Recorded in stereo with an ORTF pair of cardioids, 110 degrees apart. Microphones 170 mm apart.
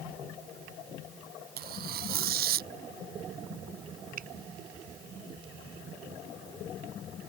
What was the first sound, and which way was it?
Tearing paper, 65° right.